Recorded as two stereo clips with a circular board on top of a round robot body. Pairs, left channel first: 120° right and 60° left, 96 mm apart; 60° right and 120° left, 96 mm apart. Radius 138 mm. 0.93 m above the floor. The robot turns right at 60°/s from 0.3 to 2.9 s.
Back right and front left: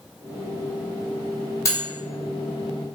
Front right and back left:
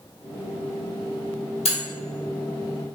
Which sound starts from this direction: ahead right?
Cutlery clinking, at 1.6 s.